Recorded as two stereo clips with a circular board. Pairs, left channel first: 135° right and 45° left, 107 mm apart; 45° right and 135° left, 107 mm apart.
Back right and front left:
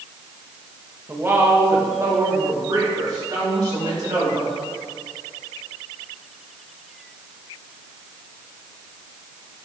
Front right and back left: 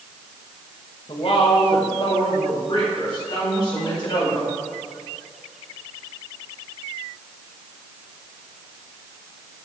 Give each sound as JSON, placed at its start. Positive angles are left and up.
{"t": 1.1, "sound": "a woman speaking", "azimuth_deg": -25, "distance_m": 1.3}